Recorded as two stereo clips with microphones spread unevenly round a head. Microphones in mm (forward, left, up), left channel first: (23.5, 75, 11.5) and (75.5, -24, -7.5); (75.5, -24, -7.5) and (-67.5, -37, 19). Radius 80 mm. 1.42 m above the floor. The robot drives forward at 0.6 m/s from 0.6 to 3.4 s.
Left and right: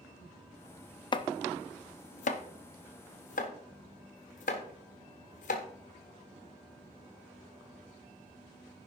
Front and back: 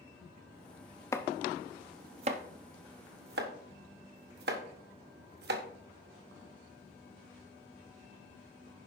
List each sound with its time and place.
1.1 s chopping: 70° left, 0.7 m; by 5.6 s 155° left, 1.3 m